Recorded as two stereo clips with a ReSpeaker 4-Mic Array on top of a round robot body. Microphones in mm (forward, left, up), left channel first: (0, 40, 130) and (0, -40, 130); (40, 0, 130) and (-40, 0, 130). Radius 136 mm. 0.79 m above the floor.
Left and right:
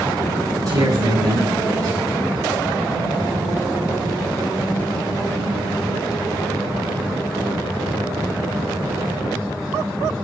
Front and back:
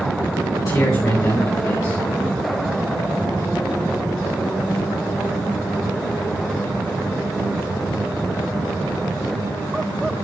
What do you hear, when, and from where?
0.6 s a man speaking: 45° right, 4 m